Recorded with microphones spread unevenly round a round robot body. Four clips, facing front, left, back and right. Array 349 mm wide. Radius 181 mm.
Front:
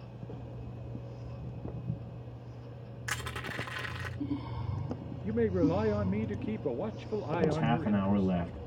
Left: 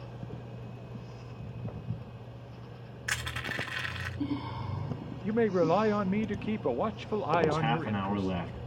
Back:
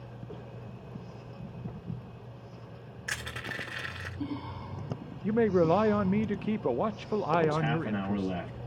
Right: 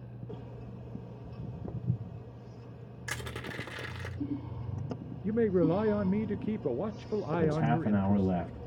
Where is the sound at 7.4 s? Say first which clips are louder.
Left 1 dB, back 1 dB; 85° right, 5 m.